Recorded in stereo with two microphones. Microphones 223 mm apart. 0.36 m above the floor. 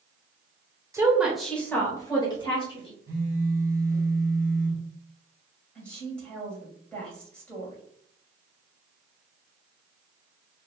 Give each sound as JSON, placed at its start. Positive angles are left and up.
{"t": 0.9, "sound": "a woman speaking", "side_deg": -10, "distance_m": 1.0}
{"t": 3.1, "sound": "a phone buzzing", "side_deg": -15, "distance_m": 1.8}
{"t": 5.8, "sound": "a woman speaking", "side_deg": 5, "distance_m": 2.0}